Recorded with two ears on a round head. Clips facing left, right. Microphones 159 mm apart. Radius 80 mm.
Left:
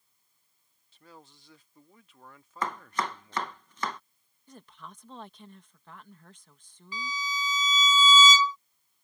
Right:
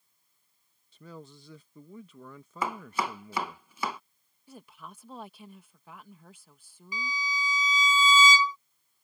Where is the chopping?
10° right (ahead or behind).